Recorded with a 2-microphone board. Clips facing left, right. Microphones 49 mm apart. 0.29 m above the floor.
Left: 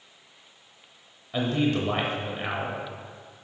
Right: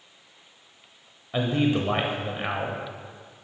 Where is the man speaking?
15° right (ahead or behind), 0.9 m.